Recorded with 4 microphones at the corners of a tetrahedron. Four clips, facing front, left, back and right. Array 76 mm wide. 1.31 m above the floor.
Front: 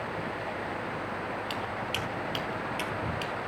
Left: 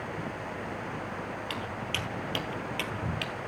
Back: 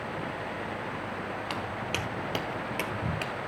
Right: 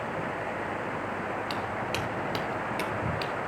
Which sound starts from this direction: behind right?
Footsteps, at 1.5 s.